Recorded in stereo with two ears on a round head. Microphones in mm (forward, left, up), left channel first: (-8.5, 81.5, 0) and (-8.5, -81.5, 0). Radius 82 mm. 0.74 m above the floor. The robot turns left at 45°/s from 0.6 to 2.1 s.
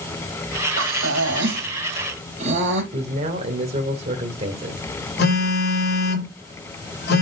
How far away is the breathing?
About 4 m.